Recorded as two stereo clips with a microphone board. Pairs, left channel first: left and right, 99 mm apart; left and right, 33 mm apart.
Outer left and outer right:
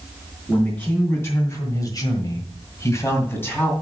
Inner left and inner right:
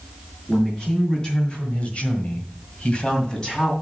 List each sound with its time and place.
0.5 s a man speaking: 20° left (ahead or behind), 3 m